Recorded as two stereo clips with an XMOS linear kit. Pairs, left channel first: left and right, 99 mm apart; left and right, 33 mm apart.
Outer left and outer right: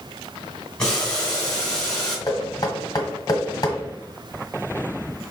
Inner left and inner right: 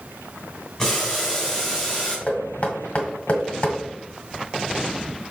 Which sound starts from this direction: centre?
Boiling, at 0.8 s.